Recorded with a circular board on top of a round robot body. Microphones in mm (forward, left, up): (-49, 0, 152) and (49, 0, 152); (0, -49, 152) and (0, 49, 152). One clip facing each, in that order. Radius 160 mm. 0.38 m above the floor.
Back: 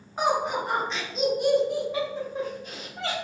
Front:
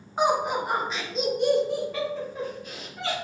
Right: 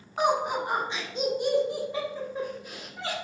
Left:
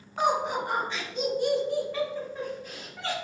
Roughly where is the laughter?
Ahead right.